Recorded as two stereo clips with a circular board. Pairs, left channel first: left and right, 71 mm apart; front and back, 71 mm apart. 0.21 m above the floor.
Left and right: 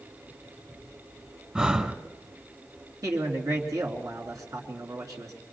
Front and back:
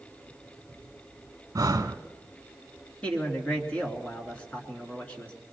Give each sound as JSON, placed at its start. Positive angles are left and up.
{"t": 1.6, "sound": "breathing", "azimuth_deg": -165, "distance_m": 0.8}
{"t": 3.0, "sound": "a man speaking", "azimuth_deg": -70, "distance_m": 2.5}